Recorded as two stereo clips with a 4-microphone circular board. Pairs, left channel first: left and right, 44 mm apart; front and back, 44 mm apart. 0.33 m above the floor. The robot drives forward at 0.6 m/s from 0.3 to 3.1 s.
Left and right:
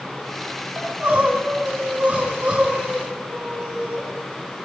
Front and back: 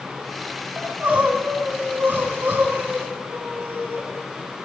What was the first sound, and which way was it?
Crying, 130° right.